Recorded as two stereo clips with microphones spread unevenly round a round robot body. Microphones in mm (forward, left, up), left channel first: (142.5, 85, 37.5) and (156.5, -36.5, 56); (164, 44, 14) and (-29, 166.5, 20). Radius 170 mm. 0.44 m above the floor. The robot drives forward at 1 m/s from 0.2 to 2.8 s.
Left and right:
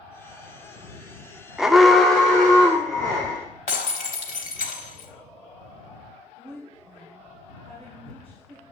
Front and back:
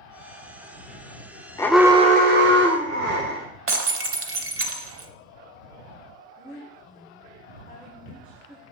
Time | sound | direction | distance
1.6 | an alarm | 15° left | 0.6 m
3.7 | breaking glass | 115° left | 0.9 m
6.3 | a woman speaking | 140° right | 1.9 m